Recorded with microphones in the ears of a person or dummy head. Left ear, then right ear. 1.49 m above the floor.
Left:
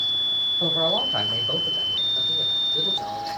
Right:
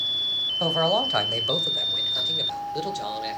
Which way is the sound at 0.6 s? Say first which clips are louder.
Even; 60° right (ahead or behind).